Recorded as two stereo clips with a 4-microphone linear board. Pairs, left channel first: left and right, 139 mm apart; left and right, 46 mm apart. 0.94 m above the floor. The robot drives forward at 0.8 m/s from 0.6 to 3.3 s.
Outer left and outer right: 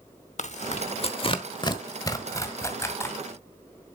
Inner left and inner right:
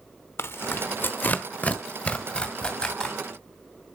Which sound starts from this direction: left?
Tearing paper, at 0.4 s.